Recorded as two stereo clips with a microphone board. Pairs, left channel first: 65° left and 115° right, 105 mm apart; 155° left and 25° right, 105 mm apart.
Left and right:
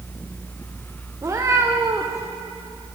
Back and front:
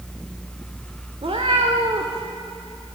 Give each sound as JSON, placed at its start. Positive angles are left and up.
{"t": 1.2, "sound": "a cat meowing", "azimuth_deg": -50, "distance_m": 1.2}